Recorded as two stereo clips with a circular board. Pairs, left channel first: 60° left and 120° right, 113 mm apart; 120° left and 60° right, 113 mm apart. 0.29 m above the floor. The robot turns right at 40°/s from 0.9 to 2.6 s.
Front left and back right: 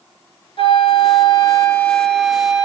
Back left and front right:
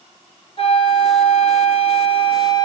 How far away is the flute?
About 1.8 m.